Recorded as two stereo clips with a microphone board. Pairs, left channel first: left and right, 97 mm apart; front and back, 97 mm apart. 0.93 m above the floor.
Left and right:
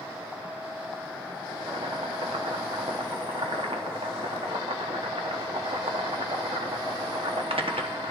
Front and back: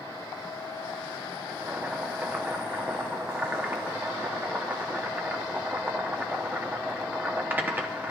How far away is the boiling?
About 1.0 m.